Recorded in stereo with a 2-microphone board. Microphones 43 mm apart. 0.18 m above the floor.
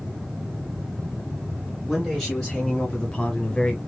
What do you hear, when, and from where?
1.9 s a man speaking: 5° left (ahead or behind), 2.5 m; by 3.8 s 20° left (ahead or behind), 1.4 m